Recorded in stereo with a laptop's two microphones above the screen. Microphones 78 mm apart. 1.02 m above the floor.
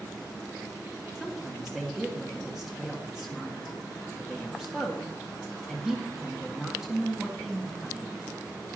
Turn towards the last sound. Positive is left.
turn(degrees=-10)  # may be behind; listen again after turning